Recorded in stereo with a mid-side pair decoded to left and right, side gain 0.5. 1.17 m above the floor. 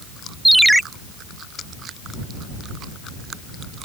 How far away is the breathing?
I don't hear breathing.